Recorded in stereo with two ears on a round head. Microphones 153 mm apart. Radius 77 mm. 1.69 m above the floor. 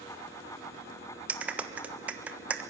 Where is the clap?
10° right (ahead or behind), 1.3 m.